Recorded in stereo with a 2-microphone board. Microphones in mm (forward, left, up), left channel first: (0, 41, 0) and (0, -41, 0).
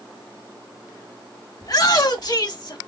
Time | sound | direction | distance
1.6 | a shout | 50° left (ahead or behind) | 2.0 m